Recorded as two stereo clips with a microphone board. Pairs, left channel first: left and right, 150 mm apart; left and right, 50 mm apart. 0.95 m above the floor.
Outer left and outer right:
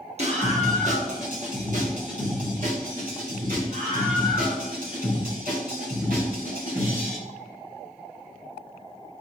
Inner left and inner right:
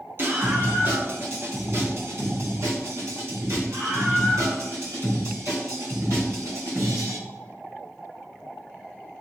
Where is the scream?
45° right (ahead or behind), 2 m; by 7.2 s 70° right (ahead or behind), 6 m.